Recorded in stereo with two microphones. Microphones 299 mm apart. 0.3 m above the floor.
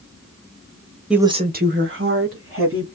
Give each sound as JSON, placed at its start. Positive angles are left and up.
{"t": 1.1, "sound": "a woman speaking", "side_deg": -5, "distance_m": 1.0}